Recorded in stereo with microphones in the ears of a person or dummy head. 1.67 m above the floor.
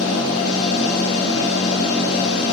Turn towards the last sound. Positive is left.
turn(degrees=85)